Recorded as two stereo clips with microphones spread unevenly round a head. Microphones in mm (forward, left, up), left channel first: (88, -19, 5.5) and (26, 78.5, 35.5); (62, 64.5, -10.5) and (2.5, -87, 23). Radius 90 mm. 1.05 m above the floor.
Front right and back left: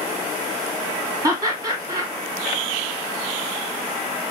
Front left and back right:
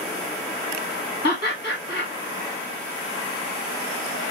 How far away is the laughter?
About 2 m.